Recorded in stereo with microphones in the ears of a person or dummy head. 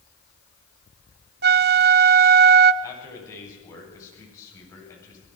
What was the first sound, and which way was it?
A flute, 50° right (ahead or behind).